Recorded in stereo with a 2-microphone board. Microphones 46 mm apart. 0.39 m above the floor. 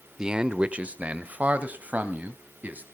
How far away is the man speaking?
About 0.8 m.